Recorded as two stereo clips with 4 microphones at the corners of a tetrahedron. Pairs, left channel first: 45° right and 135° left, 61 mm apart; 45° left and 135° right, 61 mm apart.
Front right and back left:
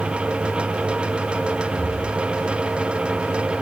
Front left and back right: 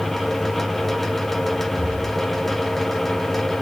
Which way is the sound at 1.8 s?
Straight behind.